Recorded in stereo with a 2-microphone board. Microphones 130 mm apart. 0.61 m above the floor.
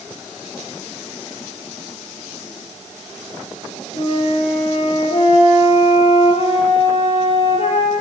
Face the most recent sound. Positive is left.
turn(degrees=45)  # may be behind; listen again after turning